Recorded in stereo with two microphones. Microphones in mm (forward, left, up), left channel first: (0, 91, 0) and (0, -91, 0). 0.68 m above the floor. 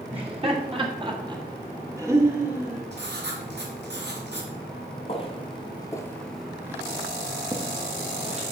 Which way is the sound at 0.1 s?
30° right (ahead or behind).